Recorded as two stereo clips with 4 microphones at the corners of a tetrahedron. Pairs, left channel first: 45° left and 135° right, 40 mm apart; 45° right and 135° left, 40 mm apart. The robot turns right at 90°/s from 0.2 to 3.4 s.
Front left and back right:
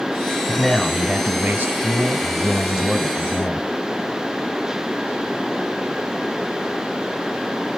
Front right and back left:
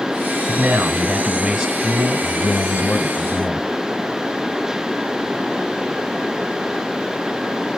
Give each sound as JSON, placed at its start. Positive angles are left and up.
{"t": 0.5, "sound": "a man speaking", "azimuth_deg": 120, "distance_m": 1.6}